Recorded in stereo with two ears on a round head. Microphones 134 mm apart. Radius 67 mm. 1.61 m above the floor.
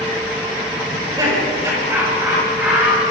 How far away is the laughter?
About 7.5 m.